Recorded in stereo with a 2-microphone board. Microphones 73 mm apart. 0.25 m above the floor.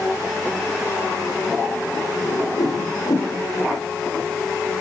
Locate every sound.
2.2 s a whoosh: 60° left (ahead or behind), 6 m